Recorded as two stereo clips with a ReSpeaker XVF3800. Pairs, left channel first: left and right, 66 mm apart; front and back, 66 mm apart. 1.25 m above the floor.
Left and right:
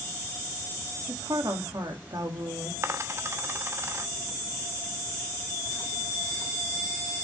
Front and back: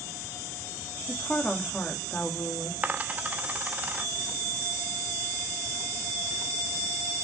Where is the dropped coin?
120° right, 0.8 m.